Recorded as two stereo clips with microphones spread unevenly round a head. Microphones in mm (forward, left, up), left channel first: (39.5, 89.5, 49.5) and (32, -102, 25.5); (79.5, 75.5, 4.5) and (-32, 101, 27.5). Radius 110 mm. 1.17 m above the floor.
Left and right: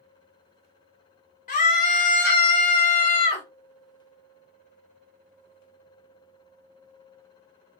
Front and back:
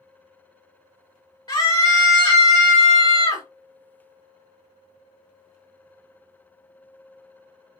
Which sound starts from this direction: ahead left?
A scream, at 1.5 s.